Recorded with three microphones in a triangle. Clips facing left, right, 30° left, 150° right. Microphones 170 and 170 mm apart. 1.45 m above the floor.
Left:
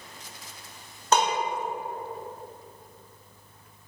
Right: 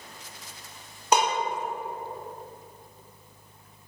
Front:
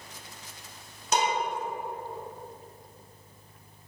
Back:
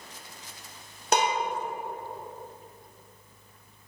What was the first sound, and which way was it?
Dishes clattering, 165° right.